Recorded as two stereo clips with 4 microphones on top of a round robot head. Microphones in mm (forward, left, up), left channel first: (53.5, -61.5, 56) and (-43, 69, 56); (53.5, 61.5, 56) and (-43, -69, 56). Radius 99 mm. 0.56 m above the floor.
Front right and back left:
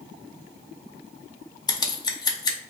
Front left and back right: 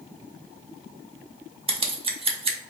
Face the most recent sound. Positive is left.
turn(degrees=-105)